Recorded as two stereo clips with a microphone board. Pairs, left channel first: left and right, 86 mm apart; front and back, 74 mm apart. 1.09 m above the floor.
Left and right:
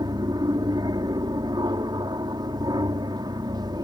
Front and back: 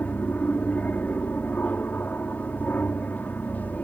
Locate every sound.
0.0 s an aircraft: 65° right